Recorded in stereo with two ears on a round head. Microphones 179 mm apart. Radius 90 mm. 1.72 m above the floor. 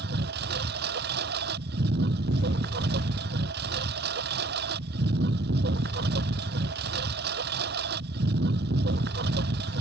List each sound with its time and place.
0.0 s a lawn mower: 55° right (ahead or behind)